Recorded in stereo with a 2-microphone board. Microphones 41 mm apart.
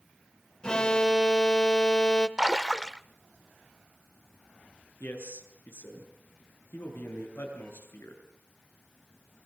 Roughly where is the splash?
Centre.